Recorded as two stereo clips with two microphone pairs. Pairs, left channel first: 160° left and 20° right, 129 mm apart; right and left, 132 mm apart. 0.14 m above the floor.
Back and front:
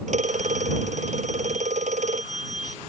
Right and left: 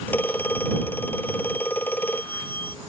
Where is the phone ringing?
15° right.